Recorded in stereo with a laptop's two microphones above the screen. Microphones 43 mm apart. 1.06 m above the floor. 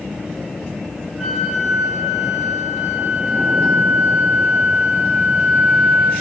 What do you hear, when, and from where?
1.2 s a flute: 15° right (ahead or behind), 2.5 m